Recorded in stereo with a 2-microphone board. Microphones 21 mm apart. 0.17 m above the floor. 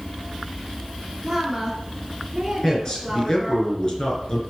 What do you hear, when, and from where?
1.2 s a woman speaking: 5° right (ahead or behind), 2 m
2.6 s a man speaking: 30° left (ahead or behind), 3 m